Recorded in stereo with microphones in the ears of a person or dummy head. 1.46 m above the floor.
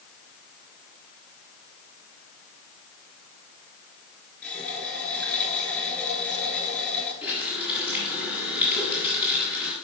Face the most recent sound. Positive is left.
turn(degrees=-5)  # may be behind; listen again after turning